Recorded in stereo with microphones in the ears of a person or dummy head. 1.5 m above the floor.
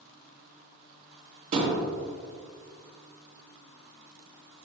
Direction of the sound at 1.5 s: 50° right (ahead or behind).